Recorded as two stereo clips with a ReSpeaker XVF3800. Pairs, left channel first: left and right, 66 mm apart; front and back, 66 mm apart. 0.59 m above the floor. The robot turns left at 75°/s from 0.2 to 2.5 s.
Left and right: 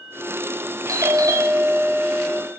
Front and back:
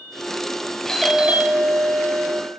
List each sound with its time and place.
0.9 s a doorbell: 80° right, 4 m; by 2.4 s 165° left, 4 m